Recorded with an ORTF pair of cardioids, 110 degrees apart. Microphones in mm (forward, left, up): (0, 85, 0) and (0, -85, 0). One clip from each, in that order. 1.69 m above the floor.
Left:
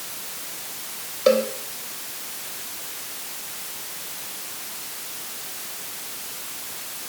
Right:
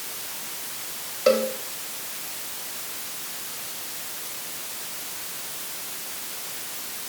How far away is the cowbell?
About 2.5 m.